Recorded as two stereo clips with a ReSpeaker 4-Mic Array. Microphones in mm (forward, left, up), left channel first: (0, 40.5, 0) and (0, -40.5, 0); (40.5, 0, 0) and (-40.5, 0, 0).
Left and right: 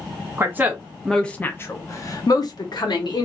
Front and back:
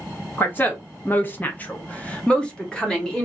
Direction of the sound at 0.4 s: 55° right.